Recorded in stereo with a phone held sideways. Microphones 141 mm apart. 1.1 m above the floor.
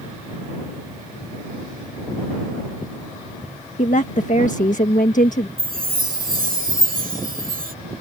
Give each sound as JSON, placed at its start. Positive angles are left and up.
{"t": 3.8, "sound": "a woman speaking", "side_deg": 65}
{"t": 5.6, "sound": "a chime", "side_deg": -85}